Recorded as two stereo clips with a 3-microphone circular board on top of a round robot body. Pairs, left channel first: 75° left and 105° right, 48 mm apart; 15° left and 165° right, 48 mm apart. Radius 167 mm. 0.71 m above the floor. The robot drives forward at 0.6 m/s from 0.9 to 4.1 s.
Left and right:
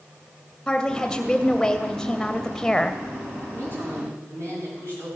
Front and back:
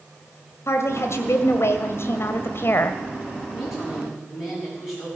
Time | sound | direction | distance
0.7 | a woman speaking | straight ahead | 2.5 m
3.5 | a woman speaking | 80° right | 8 m